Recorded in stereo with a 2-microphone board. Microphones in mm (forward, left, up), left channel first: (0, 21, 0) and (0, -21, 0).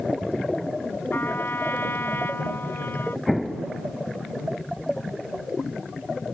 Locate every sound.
1.1 s a trumpet: 60° left (ahead or behind)
3.3 s an explosion: centre (ahead or behind)